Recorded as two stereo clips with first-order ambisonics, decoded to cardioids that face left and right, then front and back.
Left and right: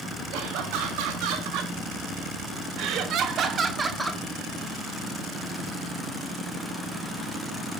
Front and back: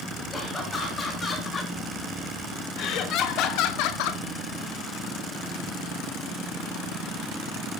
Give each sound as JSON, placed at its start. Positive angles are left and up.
{"t": 0.3, "sound": "laughter", "azimuth_deg": -75, "distance_m": 4.5}